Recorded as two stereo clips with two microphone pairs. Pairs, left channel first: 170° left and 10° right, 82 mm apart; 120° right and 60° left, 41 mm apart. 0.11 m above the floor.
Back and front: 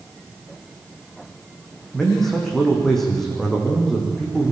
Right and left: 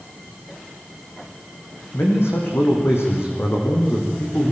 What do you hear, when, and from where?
1.9 s a man speaking: 105° right, 5 m